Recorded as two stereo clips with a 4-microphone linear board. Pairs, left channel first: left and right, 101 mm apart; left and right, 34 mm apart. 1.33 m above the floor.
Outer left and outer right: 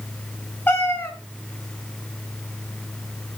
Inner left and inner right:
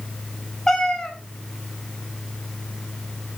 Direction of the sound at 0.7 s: 20° left (ahead or behind).